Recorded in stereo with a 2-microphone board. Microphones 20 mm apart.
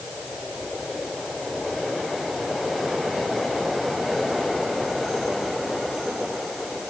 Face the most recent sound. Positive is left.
No sound to turn to.